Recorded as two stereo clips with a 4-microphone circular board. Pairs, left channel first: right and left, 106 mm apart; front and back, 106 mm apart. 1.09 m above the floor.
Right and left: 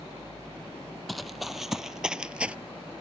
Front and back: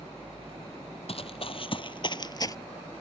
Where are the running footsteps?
Straight ahead; by 2.6 s 20° left.